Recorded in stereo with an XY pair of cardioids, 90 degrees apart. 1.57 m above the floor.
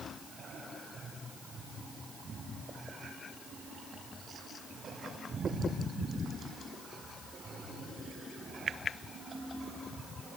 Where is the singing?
I don't hear singing.